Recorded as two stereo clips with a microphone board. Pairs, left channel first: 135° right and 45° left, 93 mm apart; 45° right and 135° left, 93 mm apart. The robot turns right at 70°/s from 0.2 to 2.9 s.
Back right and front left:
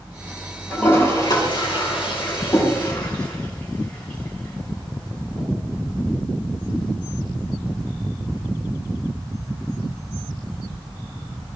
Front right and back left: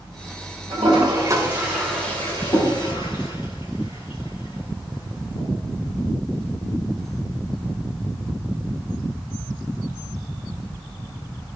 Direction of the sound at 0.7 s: 145° left.